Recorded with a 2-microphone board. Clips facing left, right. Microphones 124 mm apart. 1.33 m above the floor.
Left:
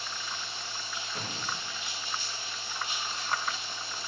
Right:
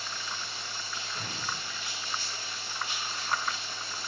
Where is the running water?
20° left (ahead or behind), 1.2 m.